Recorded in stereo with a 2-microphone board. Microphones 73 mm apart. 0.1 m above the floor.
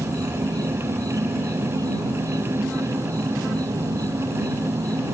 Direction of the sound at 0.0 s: 60° right (ahead or behind).